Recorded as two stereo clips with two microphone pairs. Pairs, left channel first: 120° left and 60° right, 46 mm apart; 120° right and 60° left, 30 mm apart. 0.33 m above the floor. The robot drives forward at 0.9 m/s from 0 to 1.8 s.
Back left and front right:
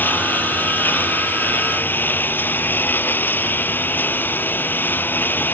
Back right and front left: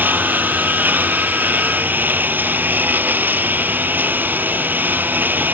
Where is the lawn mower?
70° left; by 5.5 s 75° left.